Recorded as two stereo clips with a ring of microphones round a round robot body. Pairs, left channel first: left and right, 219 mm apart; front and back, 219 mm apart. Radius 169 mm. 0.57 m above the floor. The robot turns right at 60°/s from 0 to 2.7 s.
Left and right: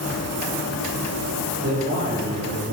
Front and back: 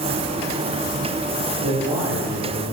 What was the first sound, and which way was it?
A man speaking, 135° right.